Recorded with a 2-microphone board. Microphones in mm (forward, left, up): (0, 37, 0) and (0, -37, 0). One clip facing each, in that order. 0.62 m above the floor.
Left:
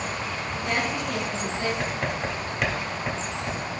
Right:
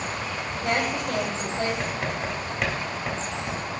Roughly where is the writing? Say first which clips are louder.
Left 1 dB; centre.